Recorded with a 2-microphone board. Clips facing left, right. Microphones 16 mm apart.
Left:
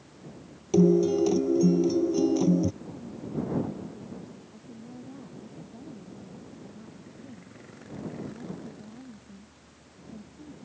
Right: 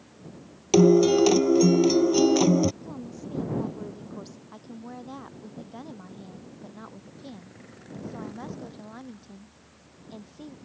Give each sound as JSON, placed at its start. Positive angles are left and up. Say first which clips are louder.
{"t": 0.7, "sound": "a guitar", "louder": "right 4 dB", "side_deg": -50}
{"t": 2.8, "sound": "a woman speaking", "louder": "right 1 dB", "side_deg": -70}
{"t": 4.5, "sound": "a woman speaking", "louder": "right 4 dB", "side_deg": -70}